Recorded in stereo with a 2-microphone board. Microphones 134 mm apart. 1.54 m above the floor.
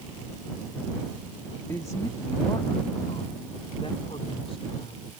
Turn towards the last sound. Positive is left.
turn(degrees=50)  # may be behind; listen again after turning